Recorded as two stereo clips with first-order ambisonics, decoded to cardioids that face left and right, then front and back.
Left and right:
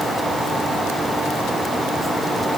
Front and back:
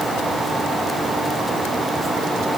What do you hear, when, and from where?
Only background noise.